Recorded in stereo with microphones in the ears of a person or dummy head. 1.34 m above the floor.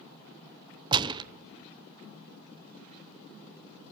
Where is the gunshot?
30° right (ahead or behind), 0.7 m.